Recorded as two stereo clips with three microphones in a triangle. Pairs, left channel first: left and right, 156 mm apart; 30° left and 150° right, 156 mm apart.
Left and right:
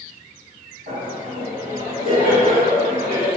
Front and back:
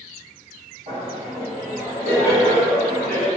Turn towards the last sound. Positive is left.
turn(degrees=-125)